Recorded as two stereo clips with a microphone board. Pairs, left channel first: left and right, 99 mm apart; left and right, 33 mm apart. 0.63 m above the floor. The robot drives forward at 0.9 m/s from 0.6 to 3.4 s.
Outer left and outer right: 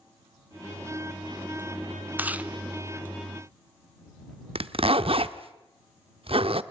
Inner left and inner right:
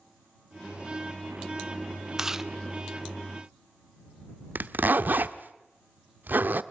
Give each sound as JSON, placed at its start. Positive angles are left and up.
{"t": 2.2, "sound": "chewing", "side_deg": -20, "distance_m": 0.7}
{"t": 4.5, "sound": "a zipper", "side_deg": -70, "distance_m": 0.8}